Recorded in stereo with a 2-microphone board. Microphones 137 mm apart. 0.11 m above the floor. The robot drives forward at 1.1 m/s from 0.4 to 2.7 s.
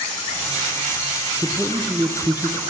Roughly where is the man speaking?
Centre.